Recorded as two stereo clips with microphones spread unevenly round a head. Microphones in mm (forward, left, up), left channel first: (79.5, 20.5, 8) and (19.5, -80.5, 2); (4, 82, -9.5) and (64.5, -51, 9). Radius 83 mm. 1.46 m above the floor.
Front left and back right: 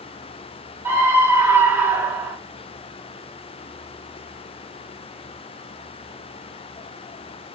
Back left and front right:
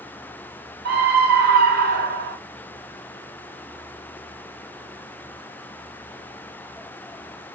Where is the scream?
50° right, 0.5 m.